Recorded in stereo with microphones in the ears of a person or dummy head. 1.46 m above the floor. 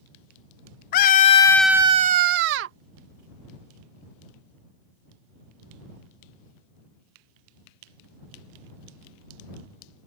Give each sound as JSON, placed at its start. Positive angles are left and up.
{"t": 0.9, "sound": "a scream", "side_deg": 50}